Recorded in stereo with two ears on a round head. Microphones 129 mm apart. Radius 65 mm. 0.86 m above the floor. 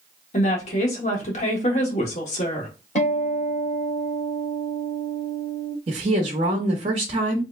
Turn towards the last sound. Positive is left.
turn(degrees=-40)  # may be behind; listen again after turning